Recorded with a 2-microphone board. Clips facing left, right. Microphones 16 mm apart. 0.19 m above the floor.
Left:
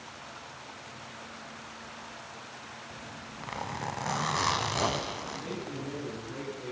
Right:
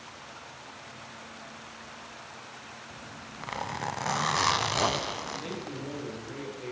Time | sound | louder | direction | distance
2.9 | a zipper | even | 10° right (ahead or behind) | 0.5 m
5.3 | a man speaking | right 1 dB | 75° right (ahead or behind) | 4.5 m